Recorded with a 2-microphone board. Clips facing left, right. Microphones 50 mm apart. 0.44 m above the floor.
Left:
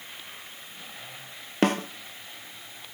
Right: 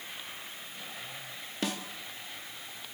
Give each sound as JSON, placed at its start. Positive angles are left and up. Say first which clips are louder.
{"t": 1.6, "sound": "a snare drum", "louder": "left 11 dB", "side_deg": 50, "distance_m": 0.6}